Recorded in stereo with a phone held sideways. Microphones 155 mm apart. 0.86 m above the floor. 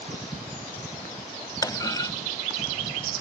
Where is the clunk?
25° left (ahead or behind).